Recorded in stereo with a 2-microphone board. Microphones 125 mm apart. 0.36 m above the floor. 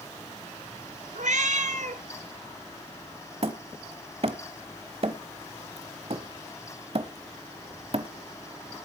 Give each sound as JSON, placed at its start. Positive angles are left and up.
{"t": 1.1, "sound": "a cat meowing", "side_deg": -75, "distance_m": 1.1}
{"t": 3.4, "sound": "hammering", "side_deg": -50, "distance_m": 1.1}